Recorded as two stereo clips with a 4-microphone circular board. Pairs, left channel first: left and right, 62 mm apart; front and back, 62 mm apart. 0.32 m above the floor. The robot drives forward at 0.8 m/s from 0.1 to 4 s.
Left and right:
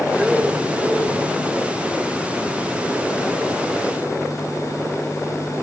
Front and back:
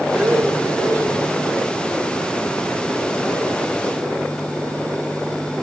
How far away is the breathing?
About 1.7 m.